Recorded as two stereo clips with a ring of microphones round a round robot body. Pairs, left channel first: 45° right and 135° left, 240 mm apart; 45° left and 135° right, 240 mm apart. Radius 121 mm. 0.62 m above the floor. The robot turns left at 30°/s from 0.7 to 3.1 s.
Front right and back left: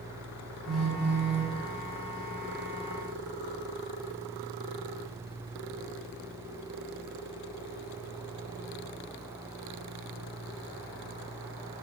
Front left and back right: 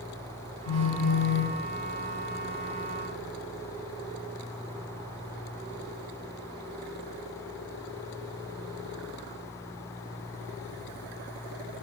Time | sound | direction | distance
0.7 | a phone buzzing | 45° left | 1.0 m